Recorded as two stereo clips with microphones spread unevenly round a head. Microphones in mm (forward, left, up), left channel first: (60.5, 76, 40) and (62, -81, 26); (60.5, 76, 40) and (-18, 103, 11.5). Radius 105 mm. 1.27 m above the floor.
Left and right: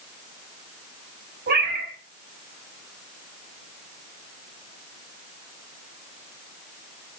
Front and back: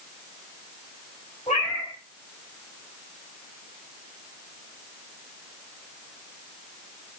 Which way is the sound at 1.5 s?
75° right.